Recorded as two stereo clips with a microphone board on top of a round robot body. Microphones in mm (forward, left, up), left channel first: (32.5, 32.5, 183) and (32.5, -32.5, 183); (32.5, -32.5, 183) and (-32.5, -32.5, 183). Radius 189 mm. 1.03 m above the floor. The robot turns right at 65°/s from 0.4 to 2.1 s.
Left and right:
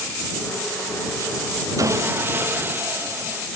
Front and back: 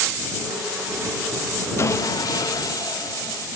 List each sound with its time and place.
1.8 s sawing: 50° right; by 3.5 s 30° right